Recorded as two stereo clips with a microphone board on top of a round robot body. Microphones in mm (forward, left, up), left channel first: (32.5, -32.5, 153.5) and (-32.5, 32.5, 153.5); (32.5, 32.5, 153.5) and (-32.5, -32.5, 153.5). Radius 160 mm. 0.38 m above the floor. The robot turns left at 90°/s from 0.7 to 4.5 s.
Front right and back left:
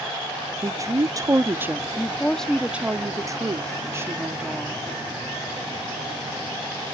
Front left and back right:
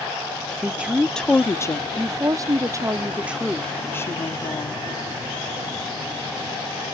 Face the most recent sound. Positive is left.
turn(degrees=45)